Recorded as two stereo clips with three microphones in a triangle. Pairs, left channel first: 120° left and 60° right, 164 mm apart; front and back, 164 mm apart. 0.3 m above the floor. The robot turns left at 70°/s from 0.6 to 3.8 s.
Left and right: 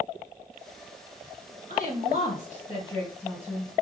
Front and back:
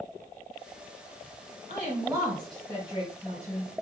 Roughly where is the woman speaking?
Behind left.